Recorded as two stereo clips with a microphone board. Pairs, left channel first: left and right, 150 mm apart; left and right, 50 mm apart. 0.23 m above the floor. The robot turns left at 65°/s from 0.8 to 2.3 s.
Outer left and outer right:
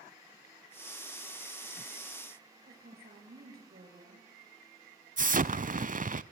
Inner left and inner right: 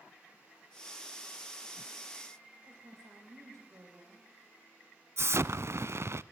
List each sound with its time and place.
2.7 s a woman speaking: 80° right, 8.5 m
5.2 s an explosion: 60° right (ahead or behind), 0.6 m